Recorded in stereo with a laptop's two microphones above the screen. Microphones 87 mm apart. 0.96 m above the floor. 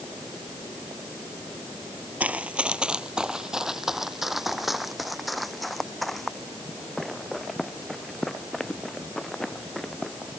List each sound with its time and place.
2.2 s running footsteps: 15° right (ahead or behind); by 10.4 s 5° left (ahead or behind)